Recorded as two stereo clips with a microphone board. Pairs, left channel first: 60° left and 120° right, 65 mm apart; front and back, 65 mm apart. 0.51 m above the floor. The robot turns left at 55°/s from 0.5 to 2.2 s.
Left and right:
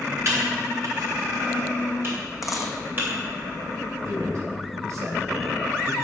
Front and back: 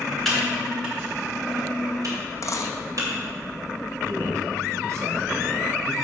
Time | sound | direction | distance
0.2 | typing on a keyboard | 80° right | 3 m
2.4 | a dropped coin | 35° right | 1.2 m
4.0 | a man speaking | 150° right | 2.5 m